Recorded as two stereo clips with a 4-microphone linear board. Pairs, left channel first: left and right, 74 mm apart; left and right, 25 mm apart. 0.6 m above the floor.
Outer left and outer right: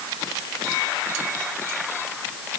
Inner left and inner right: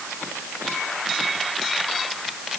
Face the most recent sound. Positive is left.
No sound to turn to.